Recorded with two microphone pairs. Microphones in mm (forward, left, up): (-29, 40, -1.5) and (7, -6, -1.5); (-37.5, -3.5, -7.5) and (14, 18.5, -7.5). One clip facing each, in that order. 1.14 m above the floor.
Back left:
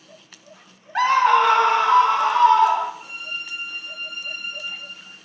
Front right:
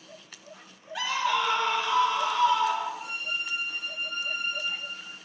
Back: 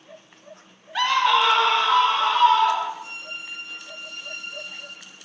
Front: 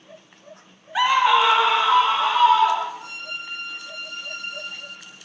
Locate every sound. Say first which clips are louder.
0.9 s a scream: back left 11 dB, front 2 dB; 95° left, 1.1 m; by 2.9 s 105° left, 3.5 m
3.0 s a violin: even, front 2 dB; 35° left, 8 m